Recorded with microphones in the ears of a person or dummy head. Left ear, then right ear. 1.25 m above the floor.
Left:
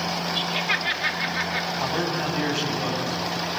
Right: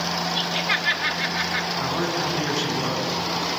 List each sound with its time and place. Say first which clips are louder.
0.3 s laughter: even; 5° left (ahead or behind), 3 m
1.8 s a man speaking: right 1 dB; 55° left (ahead or behind), 8.5 m